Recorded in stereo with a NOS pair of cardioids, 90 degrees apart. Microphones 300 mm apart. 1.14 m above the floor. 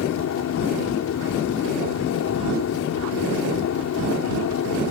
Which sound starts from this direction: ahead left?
A machine running, at 0.0 s.